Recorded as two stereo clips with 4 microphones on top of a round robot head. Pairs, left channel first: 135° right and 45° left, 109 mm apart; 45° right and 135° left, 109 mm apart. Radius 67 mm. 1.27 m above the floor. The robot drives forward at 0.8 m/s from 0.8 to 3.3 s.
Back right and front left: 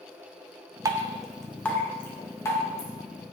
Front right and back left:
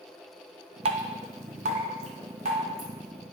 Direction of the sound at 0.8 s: 105° left.